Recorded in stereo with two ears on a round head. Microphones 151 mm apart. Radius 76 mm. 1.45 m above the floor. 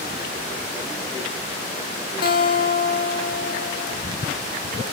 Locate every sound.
2.2 s a guitar: 55° left (ahead or behind), 1.6 m